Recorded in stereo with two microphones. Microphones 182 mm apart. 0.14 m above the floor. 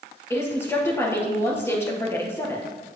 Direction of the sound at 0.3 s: 15° left (ahead or behind).